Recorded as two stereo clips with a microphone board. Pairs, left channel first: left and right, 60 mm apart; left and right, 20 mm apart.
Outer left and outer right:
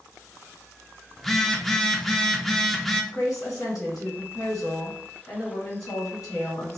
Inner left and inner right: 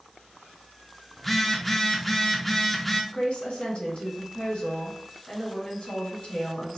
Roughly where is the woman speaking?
Left.